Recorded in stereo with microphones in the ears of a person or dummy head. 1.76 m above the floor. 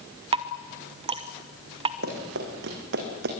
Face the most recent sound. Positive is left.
turn(degrees=-70)  # may be behind; listen again after turning